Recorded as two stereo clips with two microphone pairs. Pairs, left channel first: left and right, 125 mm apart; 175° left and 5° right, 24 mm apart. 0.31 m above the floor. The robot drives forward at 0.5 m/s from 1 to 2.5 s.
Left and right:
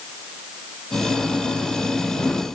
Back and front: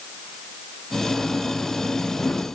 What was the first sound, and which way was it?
Only background noise.